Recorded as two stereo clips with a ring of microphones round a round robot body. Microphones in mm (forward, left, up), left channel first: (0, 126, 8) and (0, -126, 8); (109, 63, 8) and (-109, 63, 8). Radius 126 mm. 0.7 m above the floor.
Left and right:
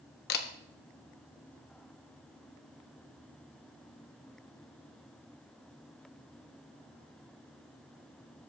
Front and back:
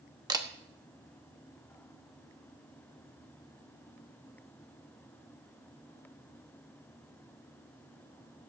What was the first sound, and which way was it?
A camera shutter, 115° left.